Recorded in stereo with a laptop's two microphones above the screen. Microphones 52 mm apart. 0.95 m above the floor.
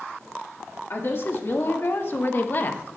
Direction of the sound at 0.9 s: 55° left (ahead or behind).